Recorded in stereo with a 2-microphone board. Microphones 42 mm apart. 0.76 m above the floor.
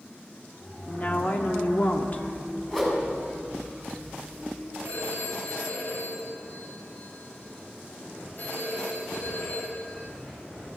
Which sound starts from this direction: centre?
A whoosh, at 2.7 s.